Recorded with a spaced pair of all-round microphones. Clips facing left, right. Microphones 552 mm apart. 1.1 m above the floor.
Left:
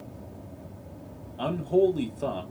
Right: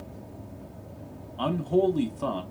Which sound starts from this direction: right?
A man speaking, at 1.4 s.